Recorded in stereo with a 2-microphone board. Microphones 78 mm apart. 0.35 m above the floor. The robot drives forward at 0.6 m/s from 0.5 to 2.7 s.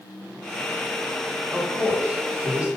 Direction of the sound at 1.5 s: 20° right (ahead or behind).